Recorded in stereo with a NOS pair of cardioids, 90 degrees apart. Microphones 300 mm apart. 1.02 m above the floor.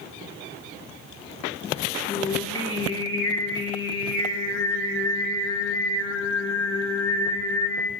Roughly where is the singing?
Ahead left.